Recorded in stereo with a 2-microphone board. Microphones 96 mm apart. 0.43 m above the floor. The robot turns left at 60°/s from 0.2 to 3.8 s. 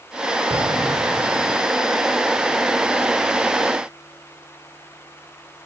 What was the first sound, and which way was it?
An explosion, 125° right.